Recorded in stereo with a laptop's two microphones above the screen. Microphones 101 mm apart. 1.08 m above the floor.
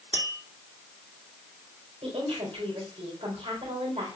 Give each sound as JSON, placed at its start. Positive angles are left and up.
{"t": 0.1, "sound": "tapping", "side_deg": 50, "distance_m": 2.5}
{"t": 2.0, "sound": "a woman speaking", "side_deg": -80, "distance_m": 4.0}